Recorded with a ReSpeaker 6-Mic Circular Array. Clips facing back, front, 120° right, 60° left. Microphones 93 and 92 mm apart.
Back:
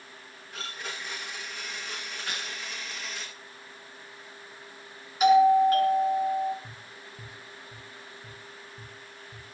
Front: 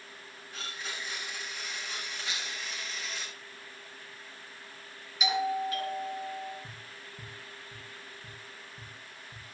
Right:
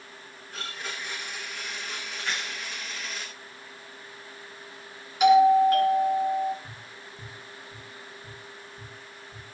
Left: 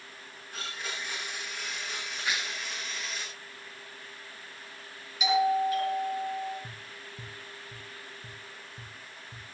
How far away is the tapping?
About 9 m.